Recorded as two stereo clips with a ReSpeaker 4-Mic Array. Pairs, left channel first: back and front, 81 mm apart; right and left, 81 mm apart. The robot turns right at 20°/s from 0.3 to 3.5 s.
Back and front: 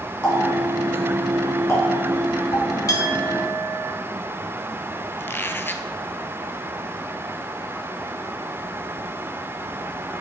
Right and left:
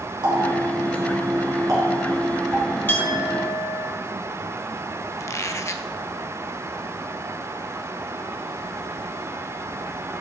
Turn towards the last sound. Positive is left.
turn(degrees=-125)